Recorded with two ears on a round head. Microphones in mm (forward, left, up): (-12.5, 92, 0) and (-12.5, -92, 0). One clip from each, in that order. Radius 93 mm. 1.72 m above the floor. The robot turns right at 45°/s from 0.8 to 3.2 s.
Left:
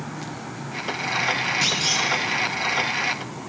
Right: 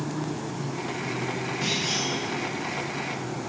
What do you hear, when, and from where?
1.6 s a clunk: 50° left (ahead or behind), 1.0 m; by 2.1 s 65° left (ahead or behind), 1.0 m